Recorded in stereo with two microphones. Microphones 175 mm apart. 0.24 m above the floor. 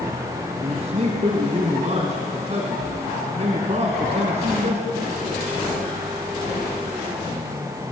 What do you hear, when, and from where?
0.6 s a man speaking: 45° right (ahead or behind), 2 m